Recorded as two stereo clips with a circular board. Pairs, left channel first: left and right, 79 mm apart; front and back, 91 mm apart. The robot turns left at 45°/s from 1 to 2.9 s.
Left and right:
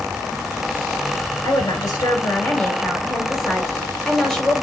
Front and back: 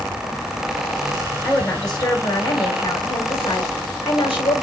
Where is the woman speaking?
70° left, 2.5 m; by 4.7 s 5° left, 2.5 m.